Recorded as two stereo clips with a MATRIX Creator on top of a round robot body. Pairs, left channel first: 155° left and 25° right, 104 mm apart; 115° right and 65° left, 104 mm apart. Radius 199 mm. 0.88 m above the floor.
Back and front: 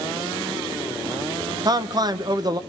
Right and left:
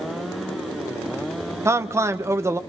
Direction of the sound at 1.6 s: 10° left.